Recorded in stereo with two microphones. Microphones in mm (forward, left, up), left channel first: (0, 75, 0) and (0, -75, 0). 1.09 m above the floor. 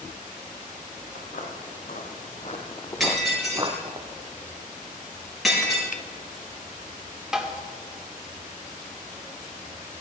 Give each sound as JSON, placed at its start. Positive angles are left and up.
{"t": 1.1, "sound": "footsteps", "side_deg": 70, "distance_m": 3.0}
{"t": 3.0, "sound": "breaking glass", "side_deg": 0, "distance_m": 6.0}
{"t": 5.9, "sound": "a finger snap", "side_deg": 60, "distance_m": 0.7}
{"t": 7.3, "sound": "tapping", "side_deg": -5, "distance_m": 1.8}